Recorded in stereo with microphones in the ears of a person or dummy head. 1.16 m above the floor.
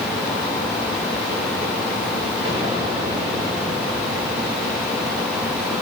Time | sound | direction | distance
2.5 | an explosion | 35° right (ahead or behind) | 5.5 m